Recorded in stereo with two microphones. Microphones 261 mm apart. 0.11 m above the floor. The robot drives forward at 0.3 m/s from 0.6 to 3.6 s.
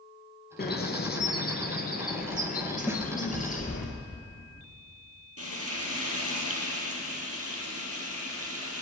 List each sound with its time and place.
0.6 s a bird: 40° left (ahead or behind), 1.6 m; by 3.9 s 30° left (ahead or behind), 2.0 m
2.9 s a snare drum: 10° right (ahead or behind), 1.7 m
5.4 s frying: 65° right (ahead or behind), 3 m